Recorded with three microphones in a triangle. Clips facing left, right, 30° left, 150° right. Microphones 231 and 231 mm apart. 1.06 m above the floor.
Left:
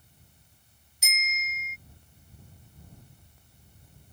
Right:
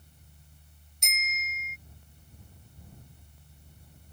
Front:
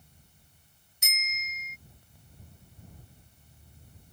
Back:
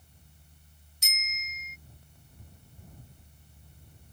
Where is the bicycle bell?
5° left.